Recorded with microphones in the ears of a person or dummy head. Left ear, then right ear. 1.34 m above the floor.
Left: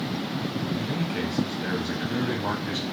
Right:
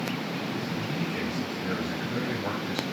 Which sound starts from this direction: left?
A man speaking, at 0.7 s.